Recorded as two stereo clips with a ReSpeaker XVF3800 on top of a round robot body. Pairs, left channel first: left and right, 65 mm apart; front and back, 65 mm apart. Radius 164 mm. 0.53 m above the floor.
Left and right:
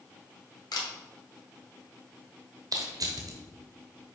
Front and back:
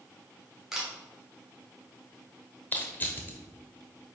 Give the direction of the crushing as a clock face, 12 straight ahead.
2 o'clock.